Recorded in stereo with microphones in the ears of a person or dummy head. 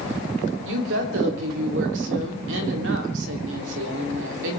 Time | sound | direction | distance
0.7 | a woman speaking | 70° right (ahead or behind) | 3 m